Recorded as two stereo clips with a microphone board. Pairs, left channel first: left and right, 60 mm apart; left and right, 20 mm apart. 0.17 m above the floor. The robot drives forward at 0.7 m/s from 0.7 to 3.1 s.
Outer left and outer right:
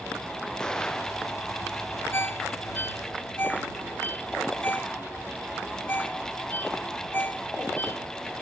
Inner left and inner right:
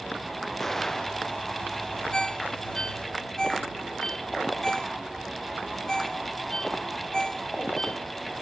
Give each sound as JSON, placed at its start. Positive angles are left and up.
{"t": 0.6, "sound": "an explosion", "side_deg": 10}
{"t": 2.1, "sound": "a ringtone", "side_deg": 45}